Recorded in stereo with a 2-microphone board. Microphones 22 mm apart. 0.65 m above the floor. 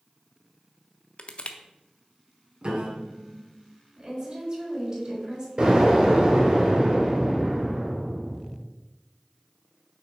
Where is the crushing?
50° left (ahead or behind), 0.6 m.